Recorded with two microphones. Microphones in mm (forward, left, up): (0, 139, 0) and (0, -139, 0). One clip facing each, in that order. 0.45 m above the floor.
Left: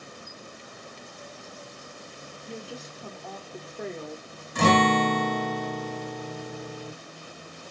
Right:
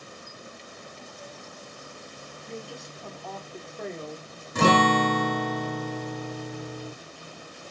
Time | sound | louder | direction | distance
2.5 | a woman speaking | even | centre (ahead or behind) | 0.7 m
4.5 | a guitar | even | 50° right (ahead or behind) | 1.3 m